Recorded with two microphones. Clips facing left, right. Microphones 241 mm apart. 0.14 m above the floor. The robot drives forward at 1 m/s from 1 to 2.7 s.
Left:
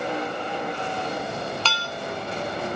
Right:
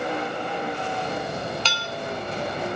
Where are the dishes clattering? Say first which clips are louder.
Even; 15° right (ahead or behind), 0.9 m; by 1.9 s 20° right (ahead or behind), 0.8 m.